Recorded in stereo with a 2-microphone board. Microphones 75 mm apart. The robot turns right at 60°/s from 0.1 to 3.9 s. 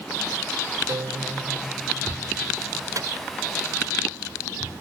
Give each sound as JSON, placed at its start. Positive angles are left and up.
{"t": 0.9, "sound": "a guitar", "azimuth_deg": -120}
{"t": 3.0, "sound": "a microwave", "side_deg": -55}